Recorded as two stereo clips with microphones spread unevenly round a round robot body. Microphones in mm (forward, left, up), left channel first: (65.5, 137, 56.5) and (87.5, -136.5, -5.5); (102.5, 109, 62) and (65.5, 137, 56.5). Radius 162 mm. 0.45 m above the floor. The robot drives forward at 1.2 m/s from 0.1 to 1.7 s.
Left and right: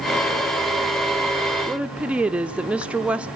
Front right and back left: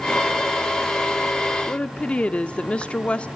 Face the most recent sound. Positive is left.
turn(degrees=-55)